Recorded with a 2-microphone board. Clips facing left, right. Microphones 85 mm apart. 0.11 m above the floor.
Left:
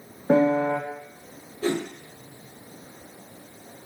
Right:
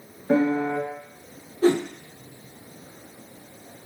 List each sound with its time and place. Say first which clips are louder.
0.3 s a piano: left 2 dB; 30° left (ahead or behind), 3 m
1.6 s a whoosh: right 6 dB; 35° right (ahead or behind), 2 m